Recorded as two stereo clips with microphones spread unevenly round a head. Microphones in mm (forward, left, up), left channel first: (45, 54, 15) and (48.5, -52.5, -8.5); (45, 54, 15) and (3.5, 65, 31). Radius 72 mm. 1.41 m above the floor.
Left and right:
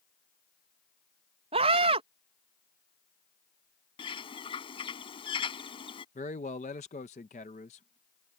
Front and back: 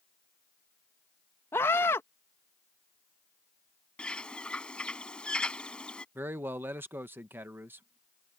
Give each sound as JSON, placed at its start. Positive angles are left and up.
{"t": 1.5, "sound": "a scream", "azimuth_deg": -65}
{"t": 4.0, "sound": "a bird", "azimuth_deg": 55}
{"t": 6.2, "sound": "a man speaking", "azimuth_deg": 130}